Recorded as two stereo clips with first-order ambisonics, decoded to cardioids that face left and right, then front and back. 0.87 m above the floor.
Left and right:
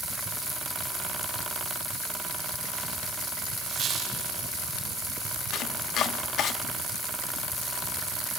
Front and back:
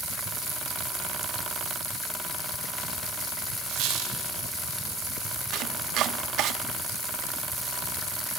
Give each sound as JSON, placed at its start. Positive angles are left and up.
{"t": 3.7, "sound": "a squeak", "azimuth_deg": -150, "distance_m": 5.5}
{"t": 5.5, "sound": "chopping", "azimuth_deg": 140, "distance_m": 1.1}